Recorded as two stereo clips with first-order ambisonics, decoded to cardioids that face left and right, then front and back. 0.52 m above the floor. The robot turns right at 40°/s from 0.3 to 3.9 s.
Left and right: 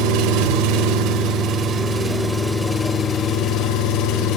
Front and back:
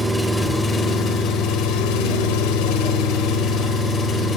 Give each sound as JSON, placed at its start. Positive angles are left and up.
{"t": 0.0, "sound": "an engine running", "azimuth_deg": -85, "distance_m": 1.5}